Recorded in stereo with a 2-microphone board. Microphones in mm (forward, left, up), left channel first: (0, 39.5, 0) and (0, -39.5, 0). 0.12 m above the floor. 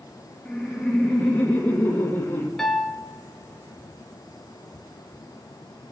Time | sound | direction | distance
0.5 | laughter | centre (ahead or behind) | 2.5 m
2.6 | a piano | 5° left (ahead or behind) | 0.9 m